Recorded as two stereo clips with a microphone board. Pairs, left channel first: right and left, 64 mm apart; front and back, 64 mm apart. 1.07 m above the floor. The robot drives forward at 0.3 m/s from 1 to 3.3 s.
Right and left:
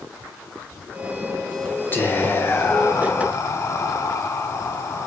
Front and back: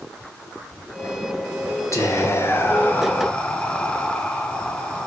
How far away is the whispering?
About 0.7 m.